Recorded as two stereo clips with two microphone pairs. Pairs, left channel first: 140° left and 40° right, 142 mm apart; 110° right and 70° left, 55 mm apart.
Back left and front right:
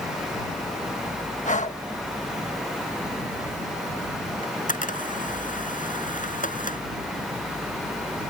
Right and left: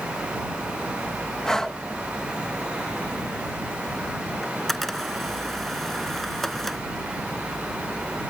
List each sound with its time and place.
1.4 s breathing: 170° left
4.4 s a camera shutter: 165° left